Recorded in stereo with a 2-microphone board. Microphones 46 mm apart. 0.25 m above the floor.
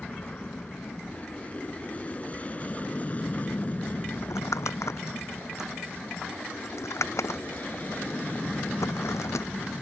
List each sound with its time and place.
0.0 s an aircraft: 25° left (ahead or behind); by 9.8 s 40° left (ahead or behind)
4.2 s crumpling: 85° left